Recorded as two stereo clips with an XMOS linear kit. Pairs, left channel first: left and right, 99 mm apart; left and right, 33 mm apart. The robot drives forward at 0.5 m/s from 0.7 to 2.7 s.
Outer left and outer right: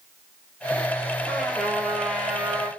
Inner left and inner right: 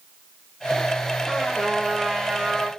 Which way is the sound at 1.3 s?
5° left (ahead or behind).